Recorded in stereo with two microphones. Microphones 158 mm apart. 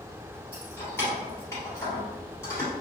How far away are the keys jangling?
About 1.7 m.